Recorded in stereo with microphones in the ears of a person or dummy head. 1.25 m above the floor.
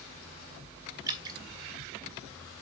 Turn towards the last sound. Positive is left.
turn(degrees=-20)  # may be behind; listen again after turning